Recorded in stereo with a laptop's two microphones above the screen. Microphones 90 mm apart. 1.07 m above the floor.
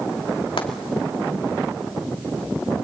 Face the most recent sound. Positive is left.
turn(degrees=80)